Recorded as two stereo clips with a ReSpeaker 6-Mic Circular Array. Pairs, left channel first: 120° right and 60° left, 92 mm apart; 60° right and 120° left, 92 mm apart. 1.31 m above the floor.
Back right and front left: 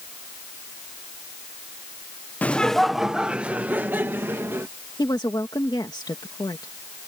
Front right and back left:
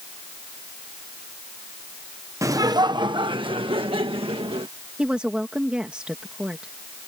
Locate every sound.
2.4 s laughter: 170° left; by 4.7 s 120° left
5.0 s a woman speaking: 160° right